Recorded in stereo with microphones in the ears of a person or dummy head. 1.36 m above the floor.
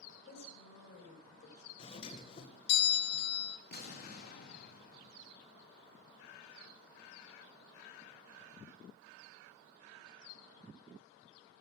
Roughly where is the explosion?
Left.